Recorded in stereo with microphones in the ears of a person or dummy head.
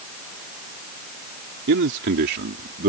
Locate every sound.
1.7 s a man speaking: 70° right (ahead or behind); by 2.9 s 55° right (ahead or behind)